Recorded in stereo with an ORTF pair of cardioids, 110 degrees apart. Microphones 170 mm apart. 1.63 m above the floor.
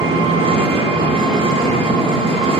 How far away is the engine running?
About 0.7 m.